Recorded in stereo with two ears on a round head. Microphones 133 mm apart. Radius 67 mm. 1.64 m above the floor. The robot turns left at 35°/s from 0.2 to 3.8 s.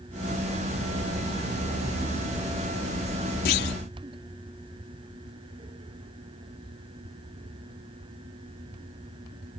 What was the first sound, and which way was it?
A clunk, 80° left.